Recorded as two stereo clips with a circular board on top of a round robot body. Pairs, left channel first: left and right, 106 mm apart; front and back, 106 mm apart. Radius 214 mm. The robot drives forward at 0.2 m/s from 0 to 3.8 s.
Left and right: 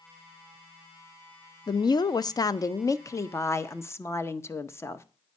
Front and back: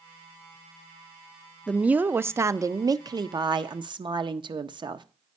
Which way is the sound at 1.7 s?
100° left.